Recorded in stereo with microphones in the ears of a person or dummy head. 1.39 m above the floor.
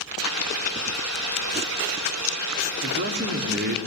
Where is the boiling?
85° right, 4.5 m.